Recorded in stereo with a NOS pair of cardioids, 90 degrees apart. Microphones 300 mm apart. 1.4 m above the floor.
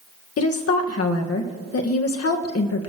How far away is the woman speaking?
About 1.8 m.